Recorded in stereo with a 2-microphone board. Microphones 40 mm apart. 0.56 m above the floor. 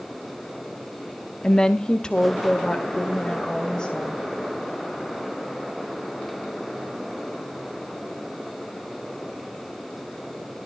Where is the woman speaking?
20° left (ahead or behind), 0.8 m; by 4.2 s 15° left (ahead or behind), 3 m.